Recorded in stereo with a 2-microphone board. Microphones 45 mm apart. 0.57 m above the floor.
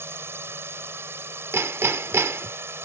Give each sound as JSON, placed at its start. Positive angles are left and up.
{"t": 0.0, "sound": "a drone", "side_deg": -65}
{"t": 1.5, "sound": "hammering", "side_deg": -70}